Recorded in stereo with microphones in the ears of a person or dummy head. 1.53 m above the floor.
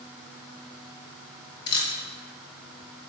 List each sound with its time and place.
1.7 s a camera shutter: 25° left (ahead or behind), 0.7 m